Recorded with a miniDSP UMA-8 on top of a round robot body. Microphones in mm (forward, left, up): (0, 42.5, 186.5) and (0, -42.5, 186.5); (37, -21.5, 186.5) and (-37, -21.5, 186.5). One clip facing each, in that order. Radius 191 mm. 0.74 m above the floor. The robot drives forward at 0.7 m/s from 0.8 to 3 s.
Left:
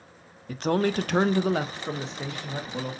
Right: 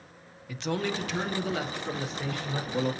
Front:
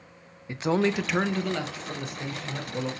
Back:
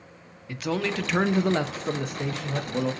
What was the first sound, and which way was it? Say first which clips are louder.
A man speaking: left 6 dB, front 3 dB; 60° left.